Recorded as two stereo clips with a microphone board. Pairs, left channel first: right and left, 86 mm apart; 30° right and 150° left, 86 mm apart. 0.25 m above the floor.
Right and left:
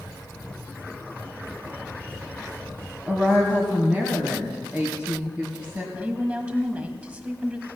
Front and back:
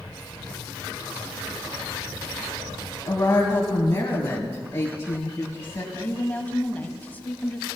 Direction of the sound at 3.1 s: 20° left.